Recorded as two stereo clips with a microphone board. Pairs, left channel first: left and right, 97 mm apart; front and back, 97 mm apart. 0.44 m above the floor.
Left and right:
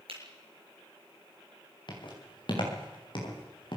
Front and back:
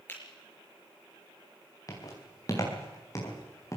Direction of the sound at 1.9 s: 55° left.